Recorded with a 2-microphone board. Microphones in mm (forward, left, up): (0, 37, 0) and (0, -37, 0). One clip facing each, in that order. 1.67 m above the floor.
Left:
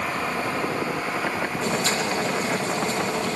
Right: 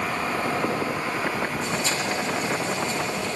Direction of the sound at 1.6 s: 70° left (ahead or behind).